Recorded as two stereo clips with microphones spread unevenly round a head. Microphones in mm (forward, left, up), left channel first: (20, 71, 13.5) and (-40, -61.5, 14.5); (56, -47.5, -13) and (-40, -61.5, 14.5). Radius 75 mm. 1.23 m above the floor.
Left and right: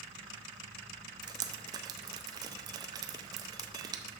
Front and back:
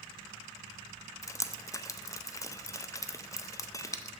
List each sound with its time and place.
1.2 s dripping: 55° right, 0.6 m